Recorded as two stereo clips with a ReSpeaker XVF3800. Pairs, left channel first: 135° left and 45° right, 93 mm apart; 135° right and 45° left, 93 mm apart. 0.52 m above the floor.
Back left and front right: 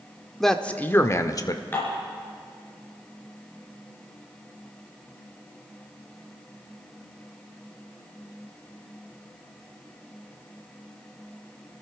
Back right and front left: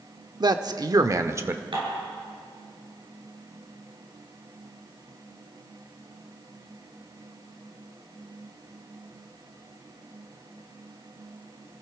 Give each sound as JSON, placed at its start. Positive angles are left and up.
{"t": 0.4, "sound": "a man speaking", "azimuth_deg": 50, "distance_m": 0.9}
{"t": 1.7, "sound": "dishes clattering", "azimuth_deg": 70, "distance_m": 4.5}